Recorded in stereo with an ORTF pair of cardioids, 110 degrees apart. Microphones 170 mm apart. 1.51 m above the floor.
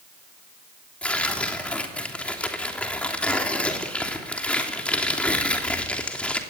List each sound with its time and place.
1.0 s tearing paper: 5° left, 3 m